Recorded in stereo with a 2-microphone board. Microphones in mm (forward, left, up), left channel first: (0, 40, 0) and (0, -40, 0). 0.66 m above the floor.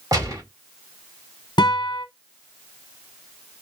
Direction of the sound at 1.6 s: 70° left (ahead or behind).